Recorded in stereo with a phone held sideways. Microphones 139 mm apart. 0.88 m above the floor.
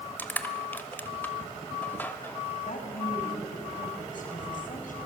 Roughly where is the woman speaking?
Left.